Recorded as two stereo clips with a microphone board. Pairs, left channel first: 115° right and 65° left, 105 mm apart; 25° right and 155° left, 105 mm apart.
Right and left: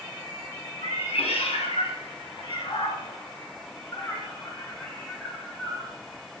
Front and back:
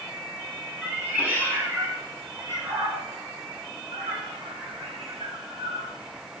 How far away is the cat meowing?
About 2.5 m.